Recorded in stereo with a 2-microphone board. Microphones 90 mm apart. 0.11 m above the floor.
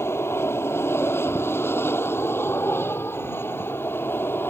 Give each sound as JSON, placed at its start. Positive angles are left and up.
{"t": 0.0, "sound": "an aircraft", "side_deg": 30}